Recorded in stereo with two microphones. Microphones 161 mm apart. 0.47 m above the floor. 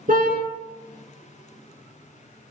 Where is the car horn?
60° right (ahead or behind), 3.5 m.